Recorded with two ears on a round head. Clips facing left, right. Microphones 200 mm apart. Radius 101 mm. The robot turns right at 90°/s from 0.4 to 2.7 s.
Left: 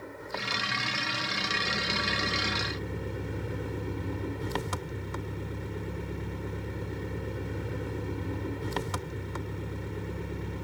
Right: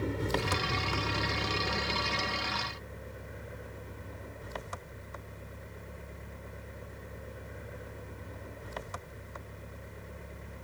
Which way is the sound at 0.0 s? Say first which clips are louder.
Right 7 dB; 130° right.